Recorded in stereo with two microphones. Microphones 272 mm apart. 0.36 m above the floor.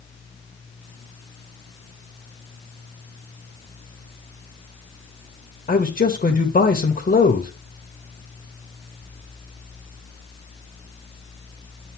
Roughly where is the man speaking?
Left.